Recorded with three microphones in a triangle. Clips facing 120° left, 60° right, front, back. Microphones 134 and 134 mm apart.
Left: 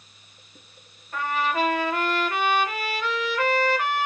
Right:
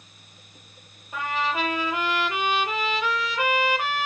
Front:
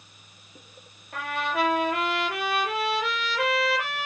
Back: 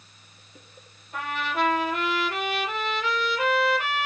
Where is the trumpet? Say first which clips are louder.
Left 2 dB, front 1 dB; 15° left, 6 m.